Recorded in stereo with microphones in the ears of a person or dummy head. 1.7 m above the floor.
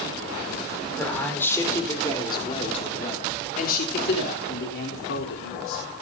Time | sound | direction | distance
1.0 | a man speaking | 10° left (ahead or behind) | 4.5 m